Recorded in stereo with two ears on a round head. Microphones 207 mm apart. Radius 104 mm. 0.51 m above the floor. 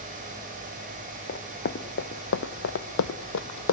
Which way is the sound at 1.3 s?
40° left (ahead or behind).